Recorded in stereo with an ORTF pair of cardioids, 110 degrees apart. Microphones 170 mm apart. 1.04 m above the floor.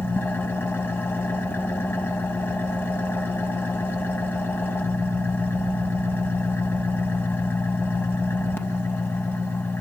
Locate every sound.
0.0 s an engine running: 15° left, 2.5 m